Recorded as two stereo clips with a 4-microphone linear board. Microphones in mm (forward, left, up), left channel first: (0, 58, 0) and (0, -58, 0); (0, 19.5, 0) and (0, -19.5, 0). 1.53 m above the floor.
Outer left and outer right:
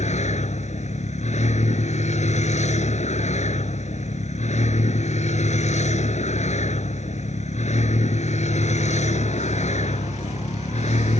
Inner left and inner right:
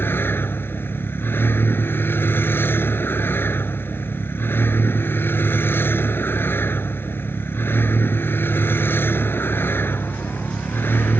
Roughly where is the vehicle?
Left.